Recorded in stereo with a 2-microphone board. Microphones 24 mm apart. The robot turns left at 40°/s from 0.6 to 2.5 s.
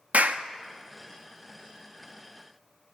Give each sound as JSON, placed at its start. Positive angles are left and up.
{"t": 0.1, "sound": "a clap", "side_deg": -65, "distance_m": 0.8}